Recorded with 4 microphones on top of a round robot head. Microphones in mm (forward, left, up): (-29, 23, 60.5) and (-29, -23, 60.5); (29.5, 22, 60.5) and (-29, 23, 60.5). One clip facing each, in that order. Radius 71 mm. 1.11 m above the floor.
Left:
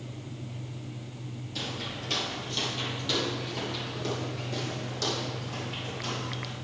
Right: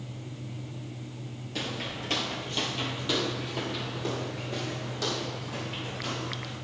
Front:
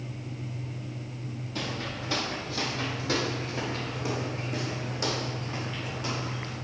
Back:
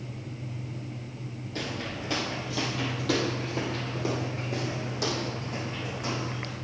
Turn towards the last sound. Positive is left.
turn(degrees=-170)